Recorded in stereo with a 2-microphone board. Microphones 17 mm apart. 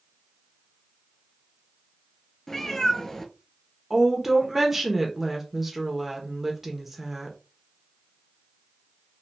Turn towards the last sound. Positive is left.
turn(degrees=-10)  # may be behind; listen again after turning